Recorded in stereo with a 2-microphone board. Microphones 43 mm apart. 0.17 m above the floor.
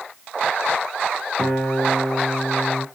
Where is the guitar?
15° right (ahead or behind), 1.4 m.